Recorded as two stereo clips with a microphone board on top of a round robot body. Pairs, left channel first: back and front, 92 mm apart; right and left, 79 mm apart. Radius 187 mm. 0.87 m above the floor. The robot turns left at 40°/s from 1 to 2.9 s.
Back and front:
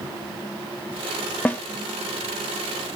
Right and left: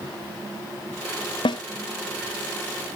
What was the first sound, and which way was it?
A snare drum, 105° right.